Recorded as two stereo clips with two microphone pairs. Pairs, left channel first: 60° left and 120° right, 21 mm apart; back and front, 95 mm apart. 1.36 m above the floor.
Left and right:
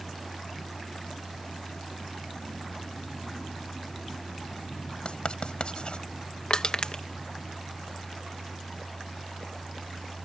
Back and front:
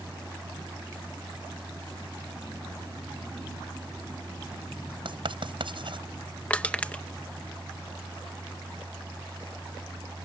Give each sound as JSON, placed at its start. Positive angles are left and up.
{"t": 5.0, "sound": "writing", "azimuth_deg": 25}
{"t": 6.5, "sound": "crushing", "azimuth_deg": 100}